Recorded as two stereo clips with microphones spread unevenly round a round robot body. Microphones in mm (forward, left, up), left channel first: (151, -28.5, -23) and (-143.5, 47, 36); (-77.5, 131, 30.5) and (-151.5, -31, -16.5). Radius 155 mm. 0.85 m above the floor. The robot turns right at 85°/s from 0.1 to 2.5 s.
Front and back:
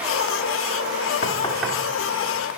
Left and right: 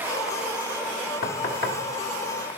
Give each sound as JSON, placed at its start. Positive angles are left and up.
{"t": 1.2, "sound": "knocking", "azimuth_deg": 45, "distance_m": 1.1}